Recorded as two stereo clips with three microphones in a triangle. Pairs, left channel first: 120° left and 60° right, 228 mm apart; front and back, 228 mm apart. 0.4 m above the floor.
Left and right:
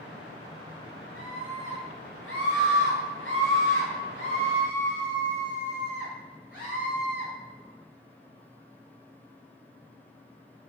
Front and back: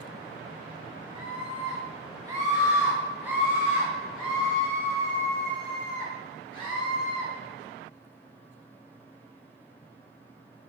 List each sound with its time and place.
1.1 s a scream: 115° left, 3.5 m; by 7.3 s 80° left, 6 m